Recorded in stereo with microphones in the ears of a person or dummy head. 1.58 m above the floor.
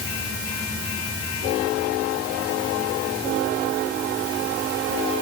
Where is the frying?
No frying in this recording.